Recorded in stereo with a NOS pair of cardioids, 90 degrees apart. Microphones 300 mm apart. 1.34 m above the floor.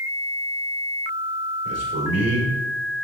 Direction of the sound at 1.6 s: 50° right.